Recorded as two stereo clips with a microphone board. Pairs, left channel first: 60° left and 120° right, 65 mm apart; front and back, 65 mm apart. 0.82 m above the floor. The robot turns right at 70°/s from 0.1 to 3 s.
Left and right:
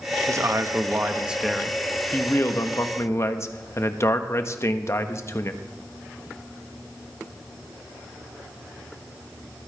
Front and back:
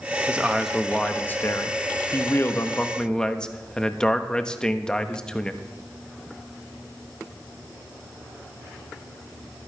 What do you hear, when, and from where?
0.3 s a man speaking: 120° right, 1.0 m; by 5.6 s 70° left, 1.0 m